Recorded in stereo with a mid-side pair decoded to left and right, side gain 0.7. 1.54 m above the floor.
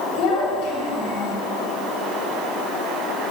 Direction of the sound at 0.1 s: 65° left.